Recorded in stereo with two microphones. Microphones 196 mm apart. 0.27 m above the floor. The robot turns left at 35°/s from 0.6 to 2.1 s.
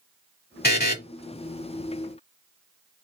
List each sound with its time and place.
0.6 s a buzzer: 55° left (ahead or behind), 1.0 m; by 1.0 s 50° left (ahead or behind), 1.0 m